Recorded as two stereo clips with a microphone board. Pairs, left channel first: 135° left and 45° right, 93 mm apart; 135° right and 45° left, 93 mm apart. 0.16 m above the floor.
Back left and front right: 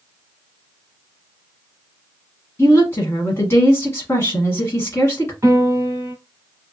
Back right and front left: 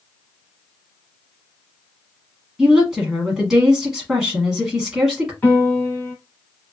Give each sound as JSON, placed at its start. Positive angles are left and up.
{"t": 2.6, "sound": "a woman speaking", "azimuth_deg": 125, "distance_m": 1.1}
{"t": 5.4, "sound": "a piano", "azimuth_deg": -80, "distance_m": 1.8}